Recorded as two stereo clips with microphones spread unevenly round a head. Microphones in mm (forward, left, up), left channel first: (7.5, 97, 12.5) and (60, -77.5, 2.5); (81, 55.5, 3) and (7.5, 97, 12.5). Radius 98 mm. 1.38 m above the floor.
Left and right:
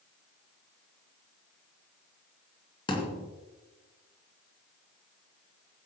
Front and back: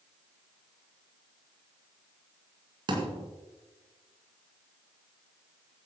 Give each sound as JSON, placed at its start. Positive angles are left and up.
{"t": 2.9, "sound": "a thud", "azimuth_deg": 170, "distance_m": 2.5}